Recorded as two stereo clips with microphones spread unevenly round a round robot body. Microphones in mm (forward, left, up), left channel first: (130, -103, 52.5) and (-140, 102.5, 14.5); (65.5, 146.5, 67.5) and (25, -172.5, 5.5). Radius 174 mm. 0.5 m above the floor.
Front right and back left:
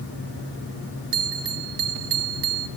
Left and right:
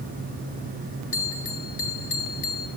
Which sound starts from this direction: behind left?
A bell, at 1.1 s.